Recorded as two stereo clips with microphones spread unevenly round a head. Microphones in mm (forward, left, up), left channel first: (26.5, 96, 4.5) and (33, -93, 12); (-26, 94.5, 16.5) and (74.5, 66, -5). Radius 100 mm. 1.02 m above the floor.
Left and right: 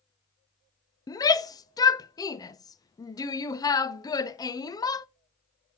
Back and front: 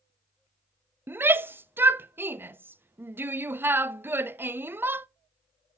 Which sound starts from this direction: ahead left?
A shout, at 1.1 s.